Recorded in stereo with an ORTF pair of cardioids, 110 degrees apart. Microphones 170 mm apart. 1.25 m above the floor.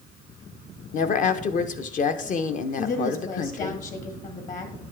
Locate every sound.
0.9 s a woman speaking: 50° left, 0.8 m
2.8 s a woman speaking: 50° left, 1.8 m